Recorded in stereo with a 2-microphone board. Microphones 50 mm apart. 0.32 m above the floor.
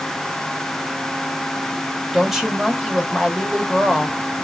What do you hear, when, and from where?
2.1 s a woman speaking: 10° right (ahead or behind), 1.0 m